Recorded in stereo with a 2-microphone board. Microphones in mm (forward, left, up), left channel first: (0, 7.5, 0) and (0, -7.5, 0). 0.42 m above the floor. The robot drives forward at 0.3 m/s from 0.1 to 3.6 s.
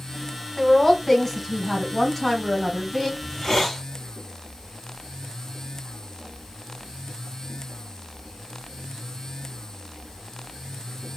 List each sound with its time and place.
0.6 s a woman speaking: 20° left (ahead or behind), 1.2 m; by 3.1 s 10° left (ahead or behind), 1.8 m
3.2 s a hiss: 25° left (ahead or behind), 0.9 m; by 3.8 s 20° left (ahead or behind), 1.0 m